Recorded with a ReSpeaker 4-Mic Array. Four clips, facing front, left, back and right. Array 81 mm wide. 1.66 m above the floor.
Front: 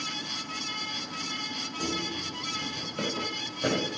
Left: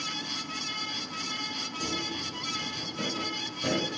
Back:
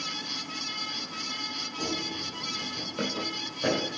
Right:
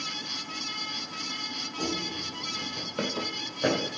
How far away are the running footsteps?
About 3 m.